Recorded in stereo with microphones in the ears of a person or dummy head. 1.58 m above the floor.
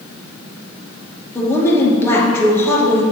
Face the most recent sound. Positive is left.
turn(degrees=20)  # may be behind; listen again after turning